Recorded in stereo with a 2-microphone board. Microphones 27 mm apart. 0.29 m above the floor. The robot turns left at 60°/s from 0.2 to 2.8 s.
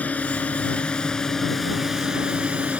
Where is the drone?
85° left; by 2.8 s 70° right.